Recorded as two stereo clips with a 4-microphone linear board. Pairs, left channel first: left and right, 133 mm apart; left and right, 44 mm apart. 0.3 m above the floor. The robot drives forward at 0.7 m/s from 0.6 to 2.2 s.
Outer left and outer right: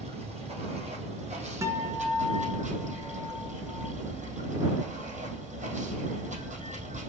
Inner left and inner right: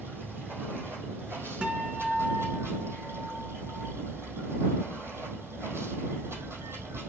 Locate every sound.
0.0 s running water: 55° right (ahead or behind), 4 m; by 7.1 s 70° right (ahead or behind), 3.5 m
1.6 s a guitar: 25° right (ahead or behind), 1.8 m; by 3.9 s 30° right (ahead or behind), 1.5 m